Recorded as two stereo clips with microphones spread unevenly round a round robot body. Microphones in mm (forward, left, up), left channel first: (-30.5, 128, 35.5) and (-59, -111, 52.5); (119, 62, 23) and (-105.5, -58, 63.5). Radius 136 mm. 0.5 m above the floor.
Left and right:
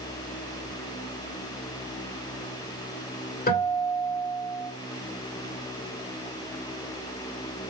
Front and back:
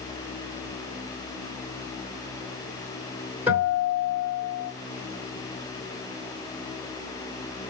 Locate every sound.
3.5 s a guitar: 120° left, 2 m